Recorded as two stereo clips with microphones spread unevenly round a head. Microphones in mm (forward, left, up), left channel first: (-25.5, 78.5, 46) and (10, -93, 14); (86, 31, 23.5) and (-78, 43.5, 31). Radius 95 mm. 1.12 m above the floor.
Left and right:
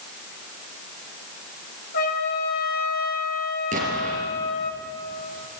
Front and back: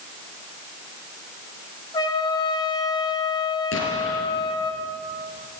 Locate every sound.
1.9 s a trumpet: 60° left, 2.5 m
3.7 s an explosion: 25° right, 4.5 m